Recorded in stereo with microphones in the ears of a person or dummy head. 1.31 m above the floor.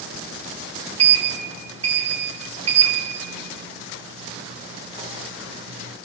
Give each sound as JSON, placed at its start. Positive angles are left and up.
{"t": 1.0, "sound": "a sliding door", "side_deg": -30, "distance_m": 1.0}